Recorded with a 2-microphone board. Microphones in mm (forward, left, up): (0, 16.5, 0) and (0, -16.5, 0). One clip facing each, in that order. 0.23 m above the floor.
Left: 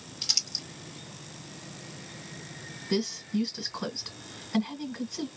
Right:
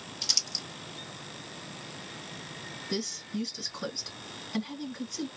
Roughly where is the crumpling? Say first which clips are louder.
Even; centre.